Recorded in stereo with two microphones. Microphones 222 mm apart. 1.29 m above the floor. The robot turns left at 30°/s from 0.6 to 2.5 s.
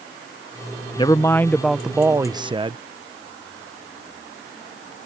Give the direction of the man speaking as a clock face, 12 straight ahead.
11 o'clock.